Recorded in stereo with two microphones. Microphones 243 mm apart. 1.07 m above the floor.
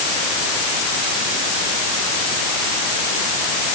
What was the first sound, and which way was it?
Only background noise.